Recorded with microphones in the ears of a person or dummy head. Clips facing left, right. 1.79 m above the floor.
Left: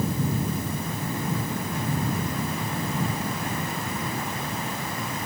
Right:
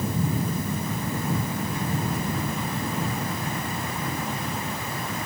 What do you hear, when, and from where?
Only background noise.